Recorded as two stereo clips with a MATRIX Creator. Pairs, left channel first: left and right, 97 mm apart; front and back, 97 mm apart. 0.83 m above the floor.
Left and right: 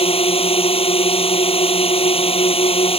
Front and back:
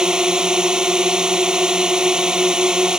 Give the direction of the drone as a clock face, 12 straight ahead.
9 o'clock.